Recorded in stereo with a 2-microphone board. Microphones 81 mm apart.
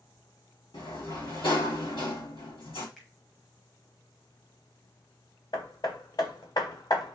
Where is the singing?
I don't hear singing.